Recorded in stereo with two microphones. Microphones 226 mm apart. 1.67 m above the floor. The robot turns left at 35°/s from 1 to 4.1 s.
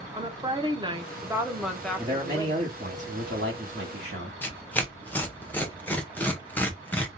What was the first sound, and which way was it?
A woman speaking, 155° right.